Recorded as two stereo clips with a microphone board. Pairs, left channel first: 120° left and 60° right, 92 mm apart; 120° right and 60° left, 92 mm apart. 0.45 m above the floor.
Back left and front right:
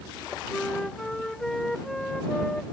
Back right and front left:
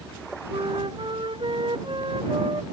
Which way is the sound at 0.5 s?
35° left.